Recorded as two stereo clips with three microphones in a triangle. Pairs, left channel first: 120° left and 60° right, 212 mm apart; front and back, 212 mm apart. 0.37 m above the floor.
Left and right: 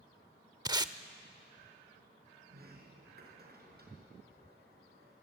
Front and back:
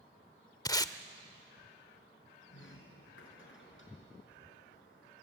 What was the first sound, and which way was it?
Tape being pulled, 35° right.